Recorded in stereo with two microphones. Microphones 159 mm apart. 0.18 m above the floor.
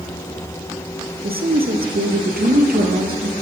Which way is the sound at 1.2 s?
75° right (ahead or behind).